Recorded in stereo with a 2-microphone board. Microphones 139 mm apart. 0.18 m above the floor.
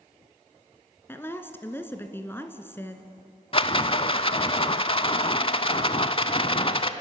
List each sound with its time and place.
1.1 s a woman speaking: 15° left (ahead or behind), 1.8 m
3.5 s a rattle: 40° left (ahead or behind), 0.8 m